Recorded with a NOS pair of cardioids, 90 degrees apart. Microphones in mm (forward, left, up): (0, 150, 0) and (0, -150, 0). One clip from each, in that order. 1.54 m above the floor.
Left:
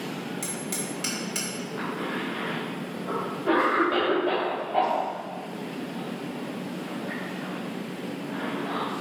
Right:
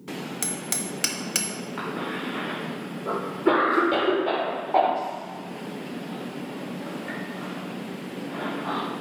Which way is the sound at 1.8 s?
60° right.